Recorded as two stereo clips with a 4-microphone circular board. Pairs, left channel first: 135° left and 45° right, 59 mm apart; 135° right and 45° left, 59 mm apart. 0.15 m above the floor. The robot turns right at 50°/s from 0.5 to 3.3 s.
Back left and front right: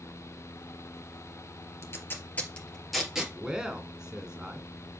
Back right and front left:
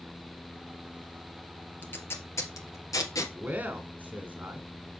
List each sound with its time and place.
1.8 s tape being pulled: 165° left, 2 m; by 3.2 s 120° right, 2 m
3.3 s a man speaking: 20° left, 1.7 m